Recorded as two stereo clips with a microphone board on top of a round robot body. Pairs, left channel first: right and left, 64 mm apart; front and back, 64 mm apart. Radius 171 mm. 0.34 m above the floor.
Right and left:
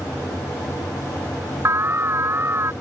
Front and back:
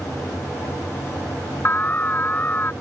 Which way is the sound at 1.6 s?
55° left.